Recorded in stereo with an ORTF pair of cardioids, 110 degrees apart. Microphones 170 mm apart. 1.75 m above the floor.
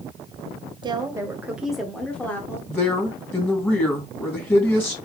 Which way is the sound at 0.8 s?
30° right.